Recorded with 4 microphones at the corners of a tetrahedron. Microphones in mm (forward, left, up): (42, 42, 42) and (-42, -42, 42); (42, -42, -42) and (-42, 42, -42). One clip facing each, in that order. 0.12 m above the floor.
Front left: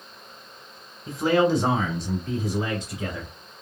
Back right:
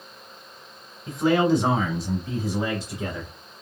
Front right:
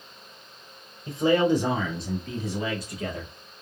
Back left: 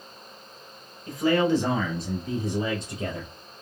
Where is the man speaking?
45° right, 1.3 m; by 3.3 s 140° left, 1.5 m.